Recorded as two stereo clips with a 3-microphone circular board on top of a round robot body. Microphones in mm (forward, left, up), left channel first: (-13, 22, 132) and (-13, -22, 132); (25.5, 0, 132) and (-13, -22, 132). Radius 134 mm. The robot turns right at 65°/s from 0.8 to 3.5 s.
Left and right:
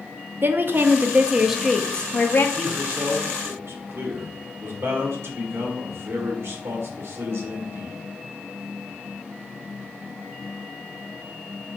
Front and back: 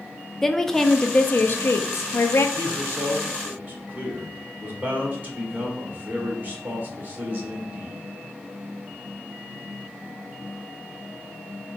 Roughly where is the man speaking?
Behind.